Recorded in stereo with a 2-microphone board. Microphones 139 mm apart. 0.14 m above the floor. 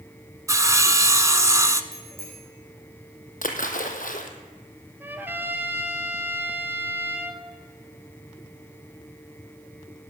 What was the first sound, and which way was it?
Sawing, 20° right (ahead or behind).